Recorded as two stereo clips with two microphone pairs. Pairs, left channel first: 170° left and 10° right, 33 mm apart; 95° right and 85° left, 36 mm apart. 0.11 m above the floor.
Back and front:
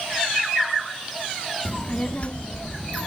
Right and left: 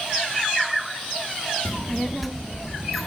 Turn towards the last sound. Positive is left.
turn(degrees=175)